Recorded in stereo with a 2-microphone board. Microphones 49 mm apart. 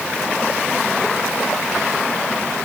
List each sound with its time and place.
Only background noise.